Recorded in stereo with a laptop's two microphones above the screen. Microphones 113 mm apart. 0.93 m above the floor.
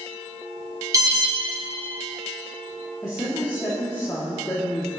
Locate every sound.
0.9 s an alarm: 30° right (ahead or behind), 1.9 m
3.0 s a woman speaking: 30° left (ahead or behind), 1.6 m